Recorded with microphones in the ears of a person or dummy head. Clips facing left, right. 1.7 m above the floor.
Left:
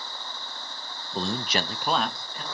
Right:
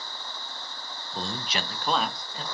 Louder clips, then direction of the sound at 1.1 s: Left 5 dB; 70° left (ahead or behind).